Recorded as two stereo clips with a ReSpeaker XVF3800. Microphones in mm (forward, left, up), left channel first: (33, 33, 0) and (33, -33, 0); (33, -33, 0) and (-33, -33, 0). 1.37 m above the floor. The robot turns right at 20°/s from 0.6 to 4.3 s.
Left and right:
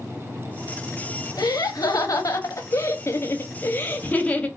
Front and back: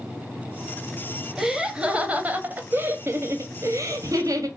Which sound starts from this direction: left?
Laughter, at 1.4 s.